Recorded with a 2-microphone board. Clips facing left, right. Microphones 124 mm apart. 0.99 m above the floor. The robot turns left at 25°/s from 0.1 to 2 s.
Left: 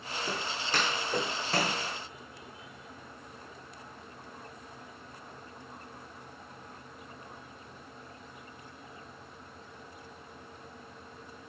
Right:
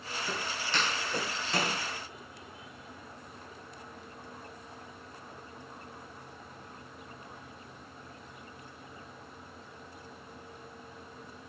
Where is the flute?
No flute in this recording.